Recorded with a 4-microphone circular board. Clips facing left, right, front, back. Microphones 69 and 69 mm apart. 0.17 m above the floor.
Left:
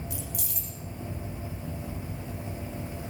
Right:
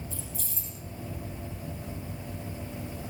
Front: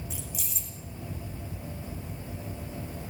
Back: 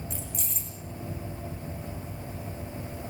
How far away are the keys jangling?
About 6.5 m.